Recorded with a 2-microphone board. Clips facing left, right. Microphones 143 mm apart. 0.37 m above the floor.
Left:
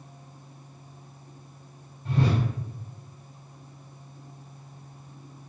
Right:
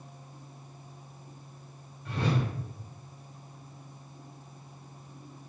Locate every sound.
2.0 s a whoosh: 35° left (ahead or behind), 1.2 m